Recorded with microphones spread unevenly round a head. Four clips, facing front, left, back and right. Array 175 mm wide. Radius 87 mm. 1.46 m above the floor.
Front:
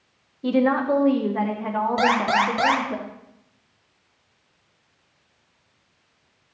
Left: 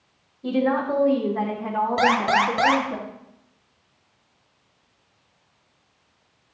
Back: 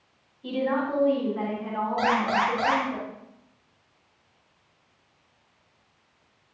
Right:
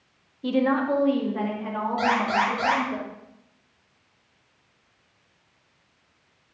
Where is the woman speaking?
20° right, 2 m; by 3.0 s 5° left, 3 m.